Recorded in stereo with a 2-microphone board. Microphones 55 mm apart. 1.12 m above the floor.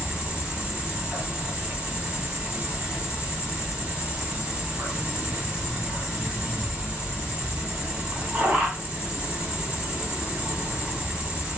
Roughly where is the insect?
Centre.